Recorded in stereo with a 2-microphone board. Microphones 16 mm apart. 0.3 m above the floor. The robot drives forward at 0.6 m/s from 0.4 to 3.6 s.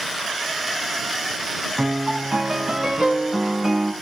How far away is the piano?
About 3 m.